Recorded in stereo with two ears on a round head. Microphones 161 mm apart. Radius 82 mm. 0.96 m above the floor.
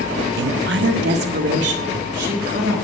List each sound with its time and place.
0.4 s a woman speaking: 60° right (ahead or behind), 0.7 m